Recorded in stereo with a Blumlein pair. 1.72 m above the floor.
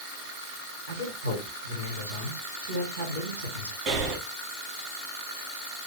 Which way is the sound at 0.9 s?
65° right.